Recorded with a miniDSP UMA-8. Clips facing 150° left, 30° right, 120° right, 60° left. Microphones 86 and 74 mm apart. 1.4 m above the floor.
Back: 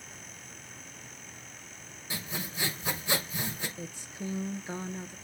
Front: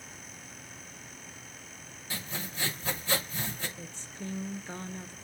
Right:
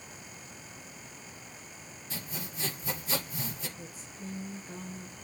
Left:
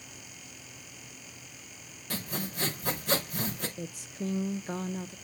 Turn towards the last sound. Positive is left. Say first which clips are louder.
# back 3 dB, left 7 dB
turn(degrees=75)